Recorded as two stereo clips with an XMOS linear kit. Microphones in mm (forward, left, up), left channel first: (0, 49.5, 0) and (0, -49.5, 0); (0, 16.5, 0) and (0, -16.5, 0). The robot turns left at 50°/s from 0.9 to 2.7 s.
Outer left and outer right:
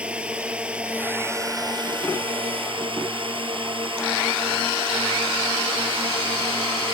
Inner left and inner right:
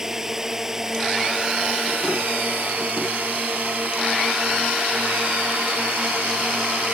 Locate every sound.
0.0 s a drone: 10° right; by 7.0 s 100° right